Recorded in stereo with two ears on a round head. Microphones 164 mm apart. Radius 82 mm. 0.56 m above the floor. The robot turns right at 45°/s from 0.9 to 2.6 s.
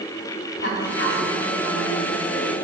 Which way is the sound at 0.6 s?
80° left.